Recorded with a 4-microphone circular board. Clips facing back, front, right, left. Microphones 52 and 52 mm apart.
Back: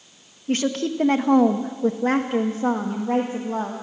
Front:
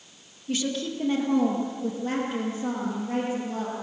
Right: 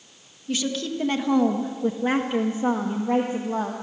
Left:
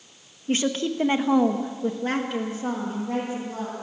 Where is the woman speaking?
140° left, 1.6 m; by 3.7 s 135° right, 2.5 m.